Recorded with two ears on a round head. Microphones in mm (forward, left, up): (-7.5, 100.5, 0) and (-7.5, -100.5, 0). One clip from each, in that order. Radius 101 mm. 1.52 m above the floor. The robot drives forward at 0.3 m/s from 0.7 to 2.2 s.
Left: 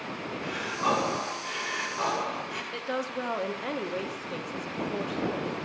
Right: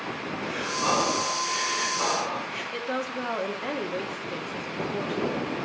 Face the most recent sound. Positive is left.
turn(degrees=10)  # may be behind; listen again after turning